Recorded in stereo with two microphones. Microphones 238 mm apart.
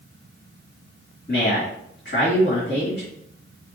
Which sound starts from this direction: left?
A man speaking, at 1.3 s.